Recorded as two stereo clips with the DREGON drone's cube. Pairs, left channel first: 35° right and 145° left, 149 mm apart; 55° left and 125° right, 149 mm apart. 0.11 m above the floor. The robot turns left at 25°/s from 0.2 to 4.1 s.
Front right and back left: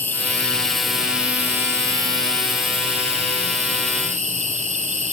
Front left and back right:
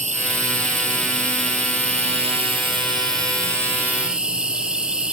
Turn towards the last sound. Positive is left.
turn(degrees=155)